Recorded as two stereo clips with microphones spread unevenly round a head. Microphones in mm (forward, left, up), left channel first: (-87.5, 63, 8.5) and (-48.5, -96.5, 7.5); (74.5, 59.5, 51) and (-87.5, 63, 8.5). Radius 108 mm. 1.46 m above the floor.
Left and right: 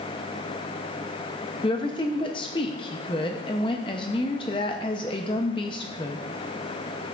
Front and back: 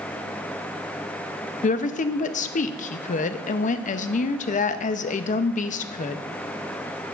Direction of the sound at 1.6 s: 35° left.